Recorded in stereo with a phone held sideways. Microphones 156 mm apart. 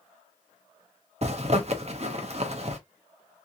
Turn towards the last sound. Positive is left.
turn(degrees=-45)  # may be behind; listen again after turning